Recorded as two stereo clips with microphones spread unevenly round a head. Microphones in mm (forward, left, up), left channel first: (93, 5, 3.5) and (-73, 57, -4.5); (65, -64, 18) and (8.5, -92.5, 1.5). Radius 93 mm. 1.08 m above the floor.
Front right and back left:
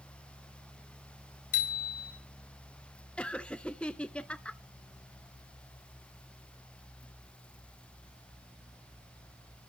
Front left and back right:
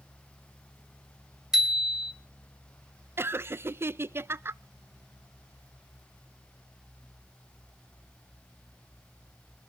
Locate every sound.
1.5 s a bicycle bell: 70° right, 4 m
3.2 s laughter: 100° right, 0.5 m